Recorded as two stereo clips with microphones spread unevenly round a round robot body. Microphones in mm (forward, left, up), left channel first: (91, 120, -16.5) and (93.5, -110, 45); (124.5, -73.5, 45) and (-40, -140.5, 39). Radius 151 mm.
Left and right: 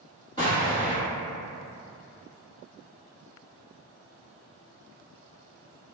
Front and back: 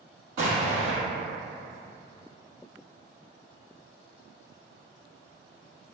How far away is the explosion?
About 0.7 m.